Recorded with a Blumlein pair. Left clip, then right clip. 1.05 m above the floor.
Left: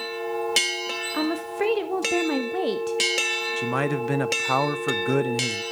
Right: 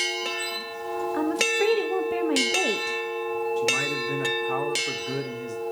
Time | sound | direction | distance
1.1 | a woman speaking | 10° left | 0.7 m
3.6 | a man speaking | 30° left | 0.6 m